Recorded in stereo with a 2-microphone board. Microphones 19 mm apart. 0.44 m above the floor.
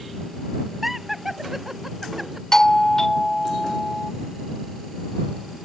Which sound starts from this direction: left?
A doorbell, at 2.5 s.